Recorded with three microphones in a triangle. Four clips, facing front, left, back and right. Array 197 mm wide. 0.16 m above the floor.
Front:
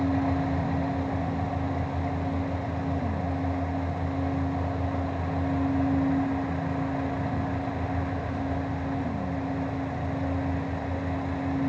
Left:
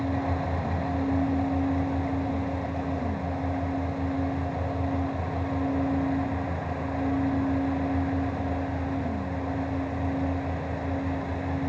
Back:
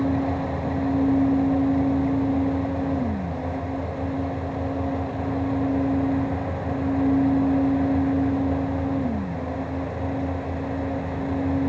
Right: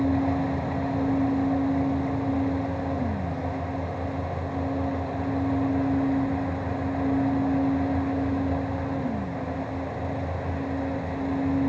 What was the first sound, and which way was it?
Only background noise.